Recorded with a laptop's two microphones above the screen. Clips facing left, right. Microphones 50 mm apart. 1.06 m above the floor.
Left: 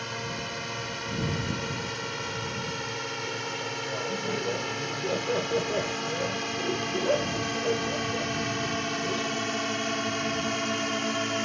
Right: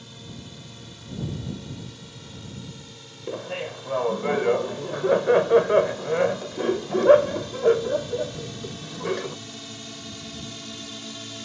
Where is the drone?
75° left (ahead or behind); by 11.5 s 60° left (ahead or behind).